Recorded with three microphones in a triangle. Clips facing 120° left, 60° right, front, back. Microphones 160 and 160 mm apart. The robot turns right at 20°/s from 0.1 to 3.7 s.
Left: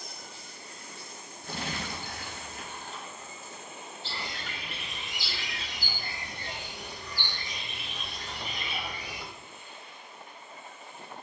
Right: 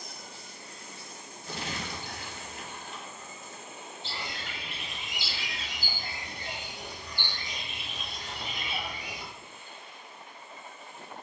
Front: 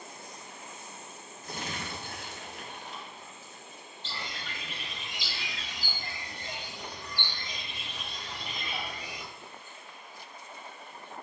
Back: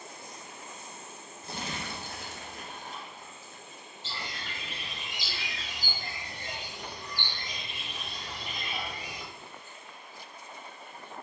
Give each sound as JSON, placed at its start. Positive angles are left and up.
{"t": 1.4, "sound": "crumpling", "azimuth_deg": 125, "distance_m": 0.9}
{"t": 4.0, "sound": "a bird", "azimuth_deg": -105, "distance_m": 1.1}